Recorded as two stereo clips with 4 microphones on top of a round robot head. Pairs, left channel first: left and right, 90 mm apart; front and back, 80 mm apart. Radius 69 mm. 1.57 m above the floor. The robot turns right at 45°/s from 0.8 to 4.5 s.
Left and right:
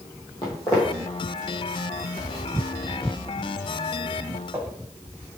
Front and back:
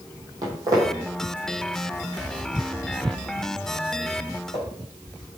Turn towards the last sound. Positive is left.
turn(degrees=-30)